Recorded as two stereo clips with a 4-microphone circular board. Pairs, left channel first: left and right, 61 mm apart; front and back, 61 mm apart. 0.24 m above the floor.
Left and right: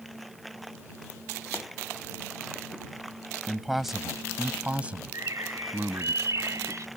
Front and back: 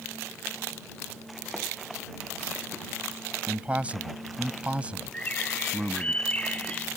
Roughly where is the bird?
Ahead right.